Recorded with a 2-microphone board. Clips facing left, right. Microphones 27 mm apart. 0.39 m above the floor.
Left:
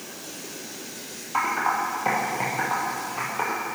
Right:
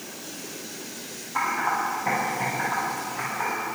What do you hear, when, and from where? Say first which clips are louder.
1.3 s typing on a keyboard: left 1 dB; 50° left (ahead or behind), 3.5 m